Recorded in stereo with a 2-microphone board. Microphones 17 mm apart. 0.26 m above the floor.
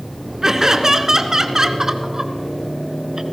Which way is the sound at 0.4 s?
30° right (ahead or behind).